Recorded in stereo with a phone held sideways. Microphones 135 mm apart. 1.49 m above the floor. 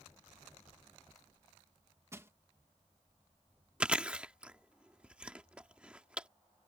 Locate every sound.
2.1 s crushing: 20° right (ahead or behind)
3.8 s chewing: 10° right (ahead or behind)